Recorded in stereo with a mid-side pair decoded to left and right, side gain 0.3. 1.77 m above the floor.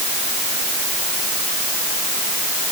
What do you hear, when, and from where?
Only background noise.